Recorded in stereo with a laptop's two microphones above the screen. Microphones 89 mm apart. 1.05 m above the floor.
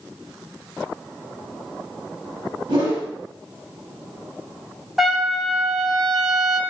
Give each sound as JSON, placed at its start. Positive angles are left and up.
{"t": 2.7, "sound": "a whoosh", "side_deg": -75, "distance_m": 2.0}
{"t": 5.0, "sound": "a trumpet", "side_deg": 0, "distance_m": 0.9}